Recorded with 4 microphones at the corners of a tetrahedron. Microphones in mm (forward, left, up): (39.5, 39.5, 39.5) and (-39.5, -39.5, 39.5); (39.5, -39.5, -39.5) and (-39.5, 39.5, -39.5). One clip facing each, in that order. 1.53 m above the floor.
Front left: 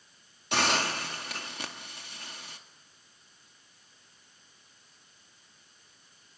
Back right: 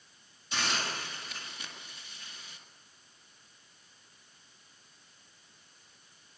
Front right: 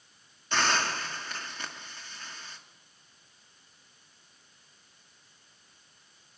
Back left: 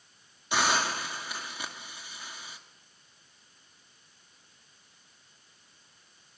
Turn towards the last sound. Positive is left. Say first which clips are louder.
# front left 7 dB, back left 1 dB
turn(degrees=55)